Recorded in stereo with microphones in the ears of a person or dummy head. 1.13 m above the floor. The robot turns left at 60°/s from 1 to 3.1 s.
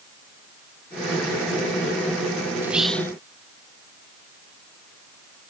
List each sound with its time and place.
2.6 s whispering: 170° right; by 3.1 s 160° left